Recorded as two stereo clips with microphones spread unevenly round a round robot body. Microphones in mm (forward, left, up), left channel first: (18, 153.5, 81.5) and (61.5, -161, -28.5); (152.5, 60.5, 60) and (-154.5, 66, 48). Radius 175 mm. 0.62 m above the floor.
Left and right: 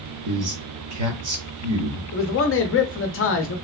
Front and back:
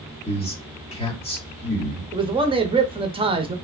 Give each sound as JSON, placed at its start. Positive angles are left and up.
{"t": 0.2, "sound": "a man speaking", "azimuth_deg": -75, "distance_m": 1.4}
{"t": 2.1, "sound": "a man speaking", "azimuth_deg": 140, "distance_m": 0.6}